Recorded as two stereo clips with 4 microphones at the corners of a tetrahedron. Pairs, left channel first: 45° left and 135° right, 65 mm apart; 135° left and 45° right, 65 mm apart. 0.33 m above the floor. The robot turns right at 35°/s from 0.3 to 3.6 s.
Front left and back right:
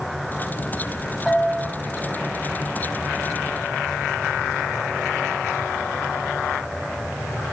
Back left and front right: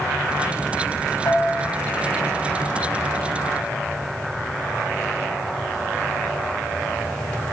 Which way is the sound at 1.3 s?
140° left.